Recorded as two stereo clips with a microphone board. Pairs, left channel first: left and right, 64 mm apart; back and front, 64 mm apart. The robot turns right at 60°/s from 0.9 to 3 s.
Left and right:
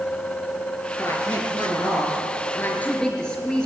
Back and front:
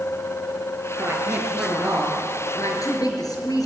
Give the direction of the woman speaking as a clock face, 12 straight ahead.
10 o'clock.